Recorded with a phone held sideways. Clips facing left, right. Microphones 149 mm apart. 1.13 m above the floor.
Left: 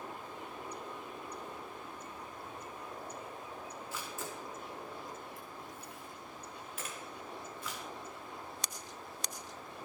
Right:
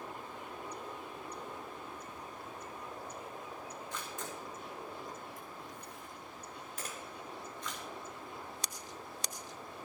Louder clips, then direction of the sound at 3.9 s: Left 1 dB; 5° left (ahead or behind).